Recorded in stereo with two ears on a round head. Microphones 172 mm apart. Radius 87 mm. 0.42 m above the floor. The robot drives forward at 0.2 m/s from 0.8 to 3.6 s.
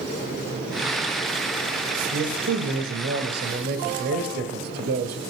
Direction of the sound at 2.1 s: 60° right (ahead or behind).